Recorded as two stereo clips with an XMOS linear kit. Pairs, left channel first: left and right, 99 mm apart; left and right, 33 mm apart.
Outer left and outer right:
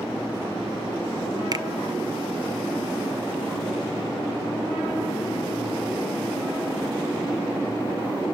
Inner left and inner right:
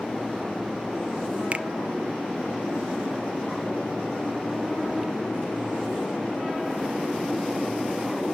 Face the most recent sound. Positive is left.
turn(degrees=-40)  # may be behind; listen again after turning